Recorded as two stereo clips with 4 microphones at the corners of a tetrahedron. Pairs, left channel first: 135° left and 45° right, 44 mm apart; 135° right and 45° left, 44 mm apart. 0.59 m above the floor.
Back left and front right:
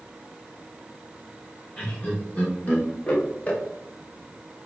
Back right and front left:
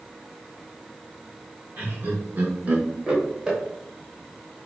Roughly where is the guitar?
No guitar in this recording.